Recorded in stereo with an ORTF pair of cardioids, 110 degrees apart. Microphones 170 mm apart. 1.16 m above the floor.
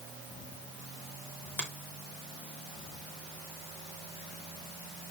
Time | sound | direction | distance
1.6 | a finger snap | 10° left | 3 m